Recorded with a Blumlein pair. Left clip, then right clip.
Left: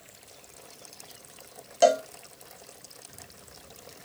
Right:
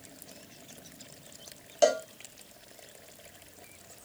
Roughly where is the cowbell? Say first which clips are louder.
Left 4 dB; ahead.